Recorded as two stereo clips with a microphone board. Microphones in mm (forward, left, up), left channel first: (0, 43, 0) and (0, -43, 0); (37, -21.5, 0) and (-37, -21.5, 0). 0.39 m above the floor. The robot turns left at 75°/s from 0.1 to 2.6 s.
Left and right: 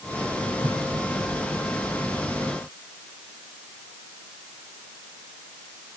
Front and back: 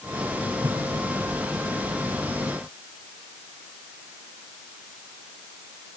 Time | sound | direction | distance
0.6 | a whoosh | 145° right | 1.9 m